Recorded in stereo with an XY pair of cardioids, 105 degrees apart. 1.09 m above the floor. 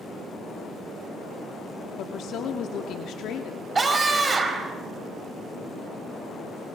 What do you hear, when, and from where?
2.0 s a woman speaking: 70° left, 2 m
3.8 s a scream: 30° right, 6 m